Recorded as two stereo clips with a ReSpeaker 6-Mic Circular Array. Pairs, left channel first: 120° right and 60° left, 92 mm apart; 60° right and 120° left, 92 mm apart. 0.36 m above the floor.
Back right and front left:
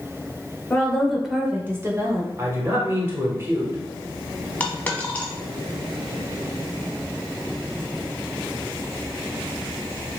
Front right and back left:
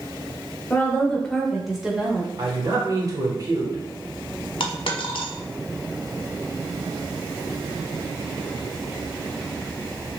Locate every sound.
0.7 s a woman speaking: 90° right, 0.8 m; by 2.3 s 55° left, 1.0 m
2.4 s a man speaking: 110° left, 1.0 m
4.6 s a dropped coin: 45° right, 0.8 m